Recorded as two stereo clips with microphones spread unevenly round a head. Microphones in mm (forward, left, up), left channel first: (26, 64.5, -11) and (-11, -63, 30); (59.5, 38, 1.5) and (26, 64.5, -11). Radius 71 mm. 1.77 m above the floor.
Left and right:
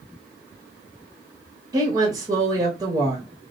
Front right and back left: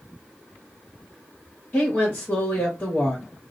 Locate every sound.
1.7 s a woman speaking: 70° right, 0.9 m